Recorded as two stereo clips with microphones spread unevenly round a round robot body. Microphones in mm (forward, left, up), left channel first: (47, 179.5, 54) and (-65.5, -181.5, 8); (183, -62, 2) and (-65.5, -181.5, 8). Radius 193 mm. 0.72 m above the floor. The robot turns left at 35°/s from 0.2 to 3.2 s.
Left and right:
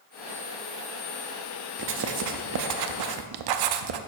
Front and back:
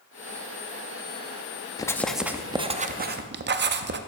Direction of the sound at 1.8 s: 50° right.